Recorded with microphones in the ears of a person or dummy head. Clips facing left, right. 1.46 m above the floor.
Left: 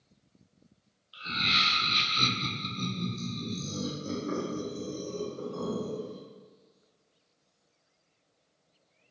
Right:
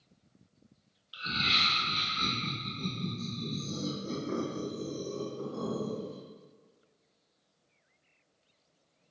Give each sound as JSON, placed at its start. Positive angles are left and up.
{"t": 1.1, "sound": "laughter", "side_deg": -20, "distance_m": 0.6}